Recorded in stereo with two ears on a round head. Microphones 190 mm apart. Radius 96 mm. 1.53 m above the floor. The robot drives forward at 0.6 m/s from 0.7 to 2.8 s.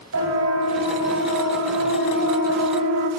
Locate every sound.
0.1 s a siren: 70° right (ahead or behind), 7.5 m; by 3.1 s 80° right, 4 m